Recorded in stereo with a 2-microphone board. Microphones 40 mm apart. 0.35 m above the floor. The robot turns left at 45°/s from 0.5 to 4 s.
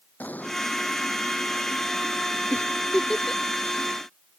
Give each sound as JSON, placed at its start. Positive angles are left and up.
{"t": 0.2, "sound": "an explosion", "side_deg": 45}
{"t": 2.5, "sound": "a giggle", "side_deg": 40}